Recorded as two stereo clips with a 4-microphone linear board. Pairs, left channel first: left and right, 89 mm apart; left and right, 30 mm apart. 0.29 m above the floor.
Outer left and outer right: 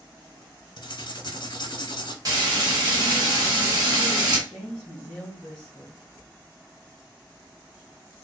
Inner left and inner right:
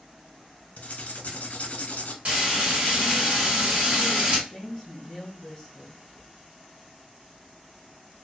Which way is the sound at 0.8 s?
55° left (ahead or behind).